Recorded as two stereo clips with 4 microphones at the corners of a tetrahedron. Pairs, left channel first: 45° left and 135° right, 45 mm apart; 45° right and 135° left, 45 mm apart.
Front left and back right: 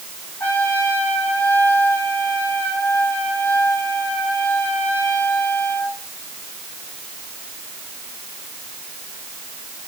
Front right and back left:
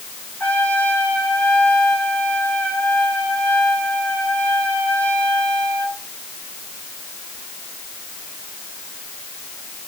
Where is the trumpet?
10° left, 5 m.